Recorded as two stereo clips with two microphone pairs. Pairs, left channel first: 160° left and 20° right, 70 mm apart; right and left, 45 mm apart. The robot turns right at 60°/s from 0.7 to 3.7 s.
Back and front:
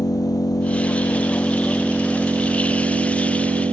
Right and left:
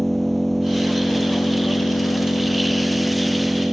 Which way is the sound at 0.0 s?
175° right.